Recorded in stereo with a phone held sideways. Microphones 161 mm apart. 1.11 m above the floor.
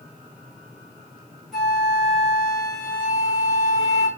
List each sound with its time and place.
1.5 s a flute: centre (ahead or behind), 2 m